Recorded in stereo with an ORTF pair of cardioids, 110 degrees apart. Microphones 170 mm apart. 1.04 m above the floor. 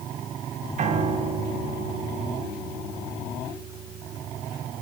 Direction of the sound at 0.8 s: 45° right.